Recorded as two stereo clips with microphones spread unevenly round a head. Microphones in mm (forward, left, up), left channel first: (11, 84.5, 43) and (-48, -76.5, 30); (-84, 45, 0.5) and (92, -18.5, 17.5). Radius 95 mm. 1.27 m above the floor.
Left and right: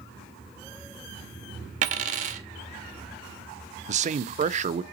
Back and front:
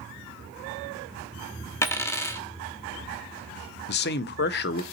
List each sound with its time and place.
1.8 s a dropped coin: 125° right, 0.8 m
3.9 s a man speaking: 160° right, 0.5 m